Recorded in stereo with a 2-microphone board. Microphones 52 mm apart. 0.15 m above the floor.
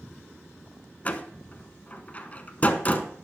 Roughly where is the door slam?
Left.